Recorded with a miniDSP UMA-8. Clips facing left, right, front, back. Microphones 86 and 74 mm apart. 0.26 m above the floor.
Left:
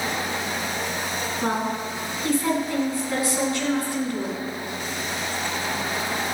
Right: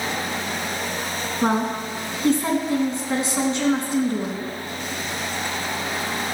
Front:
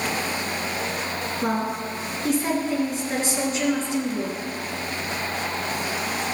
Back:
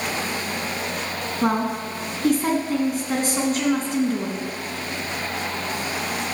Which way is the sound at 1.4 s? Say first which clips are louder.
Right 5 dB, back 4 dB; 150° right.